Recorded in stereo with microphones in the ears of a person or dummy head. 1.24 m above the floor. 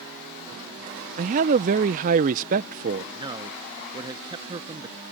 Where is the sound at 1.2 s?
40° right (ahead or behind).